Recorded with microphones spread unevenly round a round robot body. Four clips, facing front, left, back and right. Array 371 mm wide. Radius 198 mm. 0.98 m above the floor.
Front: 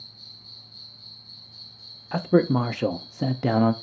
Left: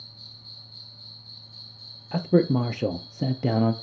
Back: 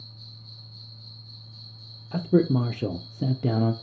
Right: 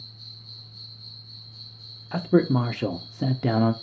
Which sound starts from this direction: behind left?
An insect, at 0.0 s.